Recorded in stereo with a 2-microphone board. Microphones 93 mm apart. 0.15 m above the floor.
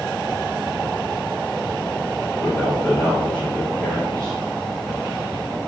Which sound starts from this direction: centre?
A man speaking, at 2.4 s.